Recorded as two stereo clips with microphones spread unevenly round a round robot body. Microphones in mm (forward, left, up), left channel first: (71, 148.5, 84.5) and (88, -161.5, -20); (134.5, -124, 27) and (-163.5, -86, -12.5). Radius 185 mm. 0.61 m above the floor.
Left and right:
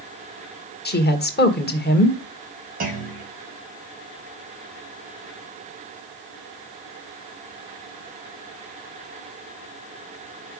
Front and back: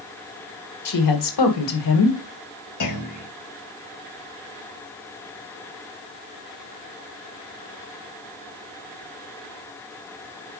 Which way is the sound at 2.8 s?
30° right.